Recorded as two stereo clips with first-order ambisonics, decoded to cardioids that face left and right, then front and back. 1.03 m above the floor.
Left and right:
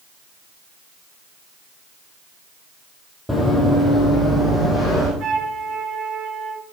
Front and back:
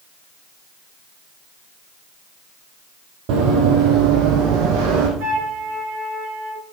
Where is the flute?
140° right, 3 m.